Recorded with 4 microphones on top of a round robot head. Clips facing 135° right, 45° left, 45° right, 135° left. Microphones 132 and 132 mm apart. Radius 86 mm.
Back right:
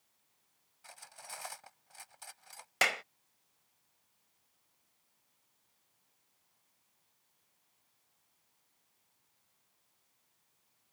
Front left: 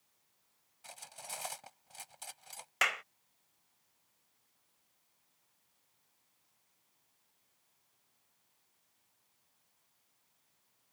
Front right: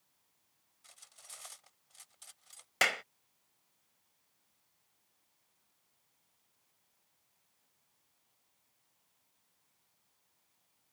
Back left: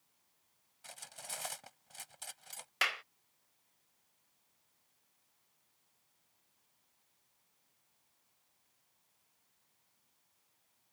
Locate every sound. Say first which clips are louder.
0.8 s cutlery clinking: front left 2 dB, back left 12 dB; 110° left
2.8 s a clap: back right 3 dB, front right 6 dB; 80° right